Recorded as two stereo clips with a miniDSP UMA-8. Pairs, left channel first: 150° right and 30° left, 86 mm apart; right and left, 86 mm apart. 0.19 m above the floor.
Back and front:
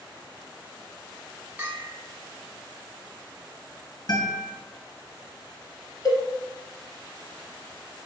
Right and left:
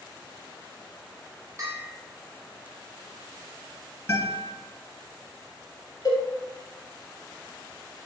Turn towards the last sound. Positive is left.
turn(degrees=-115)